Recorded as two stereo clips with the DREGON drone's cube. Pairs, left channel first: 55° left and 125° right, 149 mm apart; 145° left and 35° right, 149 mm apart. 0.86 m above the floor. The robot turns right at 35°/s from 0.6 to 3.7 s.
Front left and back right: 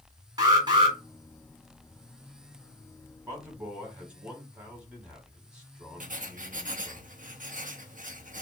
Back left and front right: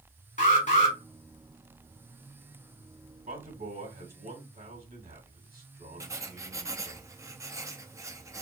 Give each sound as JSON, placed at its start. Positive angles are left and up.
{"t": 0.4, "sound": "an alarm", "azimuth_deg": 175, "distance_m": 3.0}
{"t": 3.3, "sound": "a man speaking", "azimuth_deg": -55, "distance_m": 3.0}
{"t": 6.0, "sound": "writing", "azimuth_deg": -100, "distance_m": 0.7}